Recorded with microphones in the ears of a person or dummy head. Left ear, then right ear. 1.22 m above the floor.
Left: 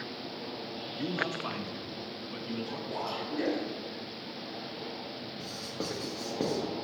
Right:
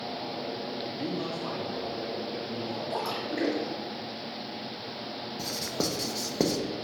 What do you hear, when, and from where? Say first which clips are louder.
1.0 s a man speaking: left 4 dB; 30° left (ahead or behind), 0.7 m; by 2.8 s 55° left (ahead or behind), 0.9 m
2.9 s a splash: right 2 dB; 65° right (ahead or behind), 2.5 m
5.4 s writing: right 8 dB; 75° right (ahead or behind), 0.8 m